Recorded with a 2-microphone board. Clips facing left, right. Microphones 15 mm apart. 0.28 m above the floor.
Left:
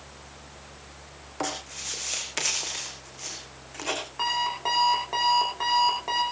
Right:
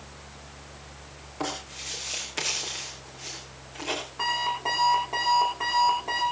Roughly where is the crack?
I don't hear a crack.